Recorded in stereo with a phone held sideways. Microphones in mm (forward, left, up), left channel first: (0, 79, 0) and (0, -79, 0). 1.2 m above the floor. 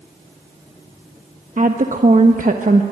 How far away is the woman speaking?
About 1.1 m.